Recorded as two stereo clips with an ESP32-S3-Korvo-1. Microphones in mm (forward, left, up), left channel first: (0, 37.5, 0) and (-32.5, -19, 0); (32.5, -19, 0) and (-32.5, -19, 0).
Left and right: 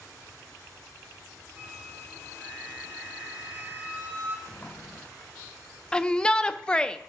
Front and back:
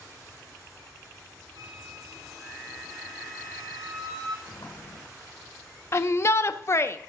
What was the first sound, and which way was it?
A flute, straight behind.